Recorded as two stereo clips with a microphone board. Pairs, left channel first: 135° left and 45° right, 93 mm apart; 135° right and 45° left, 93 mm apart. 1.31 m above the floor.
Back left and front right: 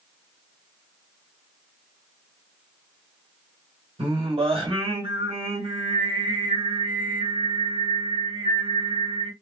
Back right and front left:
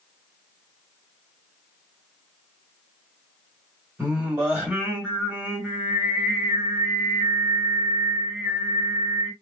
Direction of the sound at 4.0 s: 30° right.